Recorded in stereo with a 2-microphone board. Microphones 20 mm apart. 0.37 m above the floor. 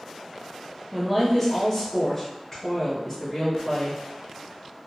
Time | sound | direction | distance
0.9 | a woman speaking | centre (ahead or behind) | 1.0 m